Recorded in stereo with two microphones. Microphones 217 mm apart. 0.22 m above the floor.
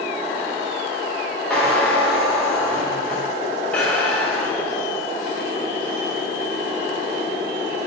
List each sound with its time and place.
1.5 s a squeak: 5° left (ahead or behind), 3 m